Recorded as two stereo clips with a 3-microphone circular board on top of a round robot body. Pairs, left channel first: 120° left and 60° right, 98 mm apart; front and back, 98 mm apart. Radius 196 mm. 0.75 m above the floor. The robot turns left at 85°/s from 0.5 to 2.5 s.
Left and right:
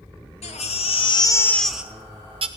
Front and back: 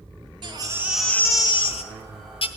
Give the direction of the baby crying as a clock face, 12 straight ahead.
8 o'clock.